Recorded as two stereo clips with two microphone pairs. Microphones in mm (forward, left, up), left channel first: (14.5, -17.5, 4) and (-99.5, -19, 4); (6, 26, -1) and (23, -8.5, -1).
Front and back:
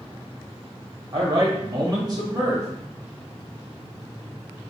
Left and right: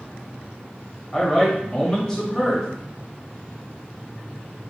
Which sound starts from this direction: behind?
A man speaking, at 1.1 s.